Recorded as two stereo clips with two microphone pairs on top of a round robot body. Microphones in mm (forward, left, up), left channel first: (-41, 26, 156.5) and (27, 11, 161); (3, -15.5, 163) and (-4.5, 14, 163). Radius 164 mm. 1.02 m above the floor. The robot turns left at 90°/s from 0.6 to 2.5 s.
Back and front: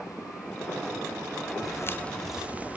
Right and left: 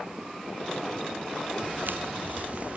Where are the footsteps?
135° left; by 2.8 s 60° left.